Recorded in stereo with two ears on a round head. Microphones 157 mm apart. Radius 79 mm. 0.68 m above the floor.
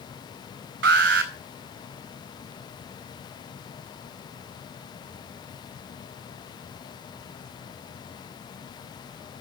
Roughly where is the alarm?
Right.